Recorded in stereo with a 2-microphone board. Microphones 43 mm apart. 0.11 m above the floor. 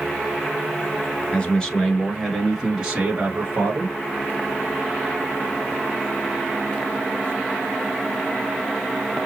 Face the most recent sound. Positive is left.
turn(degrees=-45)  # may be behind; listen again after turning